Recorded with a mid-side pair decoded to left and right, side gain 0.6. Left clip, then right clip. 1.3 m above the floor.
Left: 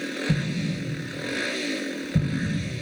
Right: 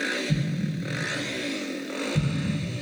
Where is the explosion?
55° left, 1.5 m.